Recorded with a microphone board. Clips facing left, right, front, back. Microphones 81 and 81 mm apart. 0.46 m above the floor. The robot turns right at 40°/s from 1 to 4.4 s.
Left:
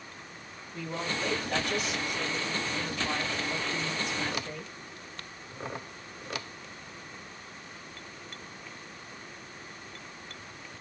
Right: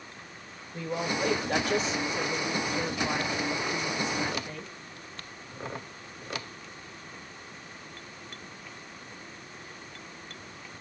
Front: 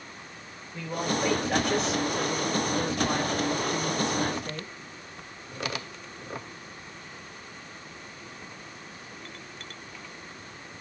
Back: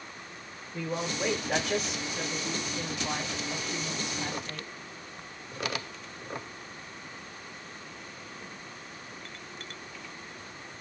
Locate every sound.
0.7 s a woman speaking: 120° right, 1.0 m; by 4.7 s 15° left, 1.0 m